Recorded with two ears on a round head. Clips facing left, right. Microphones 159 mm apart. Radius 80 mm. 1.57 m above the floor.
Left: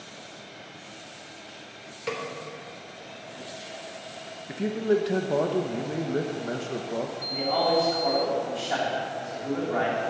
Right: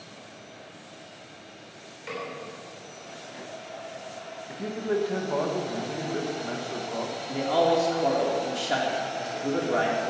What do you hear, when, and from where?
2.1 s a snare drum: 60° left (ahead or behind), 3 m
4.5 s a man speaking: 25° left (ahead or behind), 1.1 m
7.3 s a man speaking: 45° right (ahead or behind), 4 m